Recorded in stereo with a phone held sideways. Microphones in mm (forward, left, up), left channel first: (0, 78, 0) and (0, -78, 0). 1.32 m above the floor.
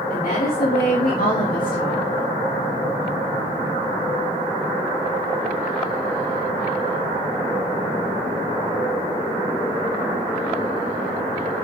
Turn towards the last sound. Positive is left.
turn(degrees=60)  # may be behind; listen again after turning